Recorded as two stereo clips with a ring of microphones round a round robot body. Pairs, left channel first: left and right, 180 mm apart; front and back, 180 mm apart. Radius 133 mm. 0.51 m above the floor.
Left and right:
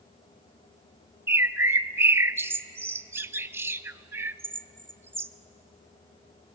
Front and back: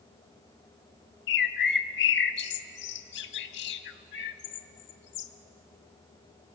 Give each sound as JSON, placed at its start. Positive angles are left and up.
{"t": 1.3, "sound": "a bird", "azimuth_deg": -15, "distance_m": 0.5}